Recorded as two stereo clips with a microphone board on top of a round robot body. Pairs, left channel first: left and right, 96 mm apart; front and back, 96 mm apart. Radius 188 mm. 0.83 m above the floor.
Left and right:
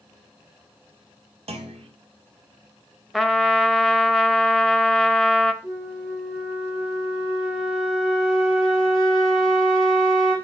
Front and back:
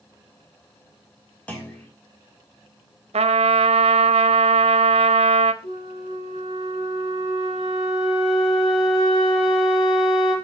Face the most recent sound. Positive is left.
turn(degrees=5)